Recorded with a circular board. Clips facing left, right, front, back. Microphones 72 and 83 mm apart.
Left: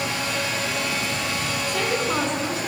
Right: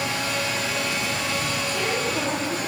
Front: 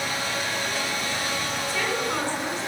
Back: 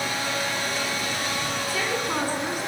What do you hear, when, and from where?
1.7 s a woman speaking: 105° left, 8 m